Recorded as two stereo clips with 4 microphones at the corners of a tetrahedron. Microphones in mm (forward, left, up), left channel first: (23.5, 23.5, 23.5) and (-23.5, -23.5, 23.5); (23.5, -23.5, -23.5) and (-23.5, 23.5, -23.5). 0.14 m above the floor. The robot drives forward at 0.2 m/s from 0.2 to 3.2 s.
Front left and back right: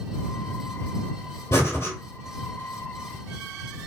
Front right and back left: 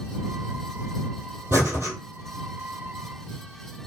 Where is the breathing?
90° left, 1.2 m; by 1.9 s 95° left, 1.2 m.